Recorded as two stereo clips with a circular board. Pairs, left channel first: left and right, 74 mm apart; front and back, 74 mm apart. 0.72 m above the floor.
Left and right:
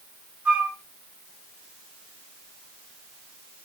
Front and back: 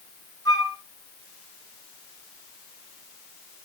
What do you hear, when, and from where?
0.5 s a flute: 25° right, 2 m